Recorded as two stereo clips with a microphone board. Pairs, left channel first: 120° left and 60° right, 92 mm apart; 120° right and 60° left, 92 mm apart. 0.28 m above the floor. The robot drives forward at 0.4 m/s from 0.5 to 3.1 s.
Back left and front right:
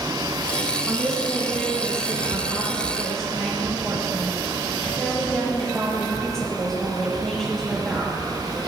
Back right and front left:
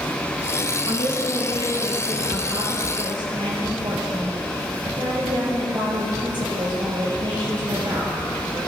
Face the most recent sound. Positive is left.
turn(degrees=35)